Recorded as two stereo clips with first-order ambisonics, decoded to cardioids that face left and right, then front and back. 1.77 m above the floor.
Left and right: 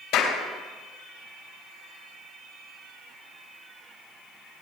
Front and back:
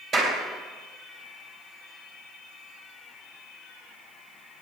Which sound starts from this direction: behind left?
A clap, at 0.1 s.